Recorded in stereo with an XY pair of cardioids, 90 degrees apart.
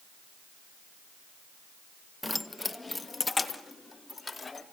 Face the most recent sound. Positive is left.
turn(degrees=25)